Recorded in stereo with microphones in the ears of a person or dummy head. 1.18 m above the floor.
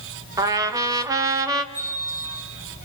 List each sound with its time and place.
0.4 s a trumpet: 20° right (ahead or behind), 1.4 m
1.7 s a bell: 10° right (ahead or behind), 7.5 m